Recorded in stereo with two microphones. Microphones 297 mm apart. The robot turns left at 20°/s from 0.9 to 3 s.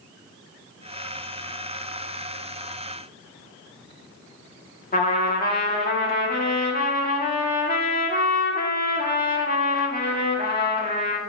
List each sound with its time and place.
4.9 s a trumpet: 30° left (ahead or behind), 1.4 m